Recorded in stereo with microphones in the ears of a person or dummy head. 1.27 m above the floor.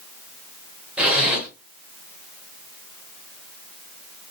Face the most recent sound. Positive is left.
turn(degrees=-5)  # may be behind; listen again after turning